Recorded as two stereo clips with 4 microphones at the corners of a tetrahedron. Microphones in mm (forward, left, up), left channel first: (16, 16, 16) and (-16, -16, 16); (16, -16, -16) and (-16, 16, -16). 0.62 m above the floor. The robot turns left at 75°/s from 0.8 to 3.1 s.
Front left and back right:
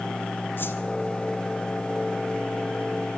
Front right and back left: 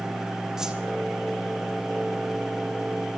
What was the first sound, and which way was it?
A whoosh, 60° left.